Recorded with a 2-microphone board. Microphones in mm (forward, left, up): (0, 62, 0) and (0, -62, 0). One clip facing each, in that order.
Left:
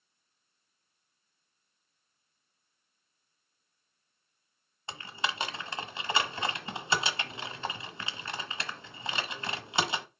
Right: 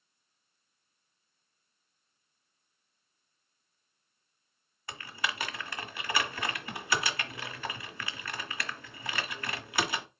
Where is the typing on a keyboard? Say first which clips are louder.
Left 1 dB; 25° left (ahead or behind), 1.3 m.